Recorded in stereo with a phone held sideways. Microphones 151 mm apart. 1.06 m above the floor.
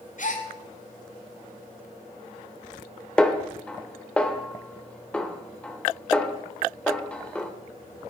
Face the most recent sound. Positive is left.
turn(degrees=5)  # may be behind; listen again after turning